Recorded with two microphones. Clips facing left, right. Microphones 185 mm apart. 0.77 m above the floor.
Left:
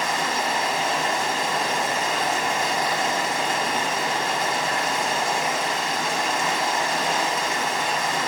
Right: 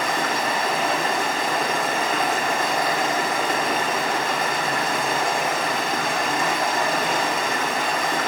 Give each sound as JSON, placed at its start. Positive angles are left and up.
{"t": 0.0, "sound": "running water", "side_deg": -60, "distance_m": 1.6}